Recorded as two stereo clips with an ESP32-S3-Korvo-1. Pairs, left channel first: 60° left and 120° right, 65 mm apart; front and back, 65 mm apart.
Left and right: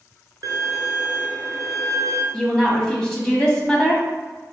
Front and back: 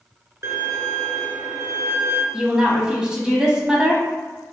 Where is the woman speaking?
125° left, 1.0 m.